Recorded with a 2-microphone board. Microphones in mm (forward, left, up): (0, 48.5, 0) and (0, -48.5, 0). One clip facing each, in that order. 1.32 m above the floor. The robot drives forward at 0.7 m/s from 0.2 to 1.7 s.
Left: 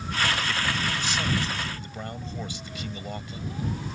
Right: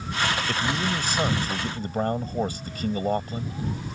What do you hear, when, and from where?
0.5 s a man speaking: 50° right (ahead or behind); by 3.5 s 45° right (ahead or behind)